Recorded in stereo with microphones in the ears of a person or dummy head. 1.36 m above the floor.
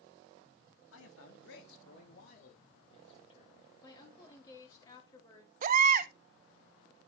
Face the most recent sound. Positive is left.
turn(degrees=-45)  # may be behind; listen again after turning